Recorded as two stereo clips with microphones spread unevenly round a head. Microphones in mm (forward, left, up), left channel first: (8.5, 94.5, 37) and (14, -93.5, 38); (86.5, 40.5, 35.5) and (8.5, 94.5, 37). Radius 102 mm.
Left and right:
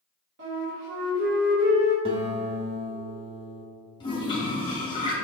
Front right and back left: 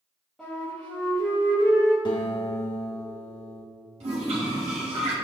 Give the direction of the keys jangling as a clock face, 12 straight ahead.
No keys jangling in this recording.